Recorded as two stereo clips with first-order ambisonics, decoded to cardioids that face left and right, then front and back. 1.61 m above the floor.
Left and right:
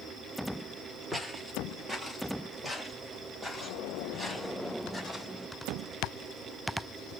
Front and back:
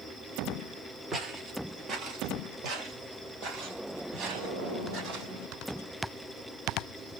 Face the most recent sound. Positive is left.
turn(degrees=180)